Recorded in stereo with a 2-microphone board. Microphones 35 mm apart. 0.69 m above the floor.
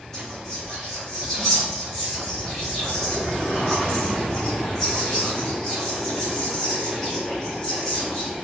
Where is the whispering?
10° left (ahead or behind), 1.8 m.